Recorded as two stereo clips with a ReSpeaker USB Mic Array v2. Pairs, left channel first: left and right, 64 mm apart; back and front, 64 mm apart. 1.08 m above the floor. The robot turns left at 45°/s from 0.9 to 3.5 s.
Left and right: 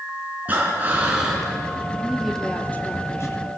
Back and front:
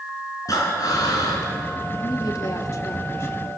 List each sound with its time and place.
0.5 s breathing: 155° right, 4 m; by 1.5 s 175° left, 4 m
2.0 s a woman speaking: 170° right, 2.5 m; by 3.6 s 120° left, 2.5 m